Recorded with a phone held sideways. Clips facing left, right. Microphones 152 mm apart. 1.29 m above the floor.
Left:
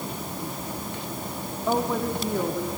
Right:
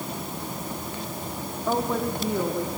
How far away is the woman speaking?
About 3 m.